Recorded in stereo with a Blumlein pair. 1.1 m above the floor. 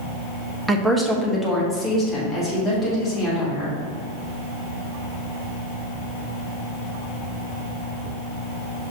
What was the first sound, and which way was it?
A woman speaking, 10° right.